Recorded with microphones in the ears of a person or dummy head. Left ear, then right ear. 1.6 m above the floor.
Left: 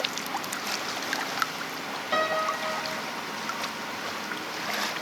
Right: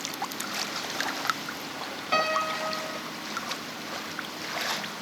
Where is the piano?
15° right (ahead or behind), 1.3 m.